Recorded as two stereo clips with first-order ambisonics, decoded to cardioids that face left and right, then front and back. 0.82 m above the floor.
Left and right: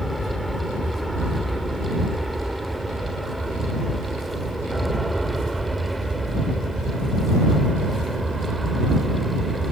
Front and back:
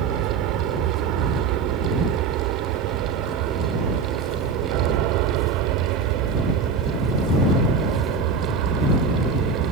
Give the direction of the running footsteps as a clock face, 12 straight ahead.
No running footsteps in this recording.